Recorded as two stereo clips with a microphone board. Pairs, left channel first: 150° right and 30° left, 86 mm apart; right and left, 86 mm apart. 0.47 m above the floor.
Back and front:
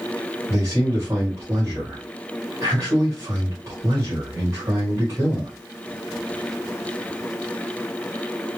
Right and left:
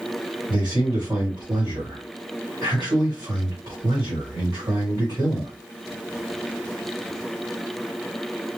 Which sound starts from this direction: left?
A man speaking, at 0.5 s.